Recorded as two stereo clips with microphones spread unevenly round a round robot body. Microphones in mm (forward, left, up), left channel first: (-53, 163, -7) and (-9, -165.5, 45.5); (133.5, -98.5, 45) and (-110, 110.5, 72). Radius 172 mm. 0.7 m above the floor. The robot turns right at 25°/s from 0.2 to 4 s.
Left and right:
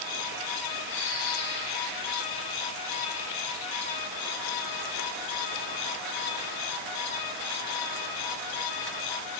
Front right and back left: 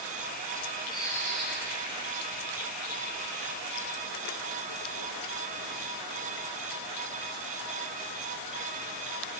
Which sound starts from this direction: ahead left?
A bird, at 0.9 s.